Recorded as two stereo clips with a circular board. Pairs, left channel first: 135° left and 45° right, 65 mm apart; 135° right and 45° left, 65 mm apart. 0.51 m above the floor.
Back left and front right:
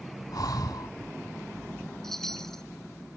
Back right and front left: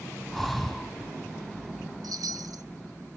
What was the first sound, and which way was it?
Breathing, 135° left.